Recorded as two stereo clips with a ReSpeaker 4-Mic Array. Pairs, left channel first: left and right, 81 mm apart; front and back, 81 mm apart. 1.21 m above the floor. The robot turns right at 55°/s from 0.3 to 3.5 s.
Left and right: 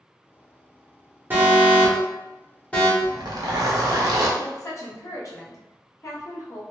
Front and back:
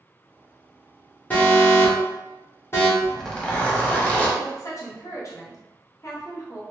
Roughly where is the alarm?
Ahead right.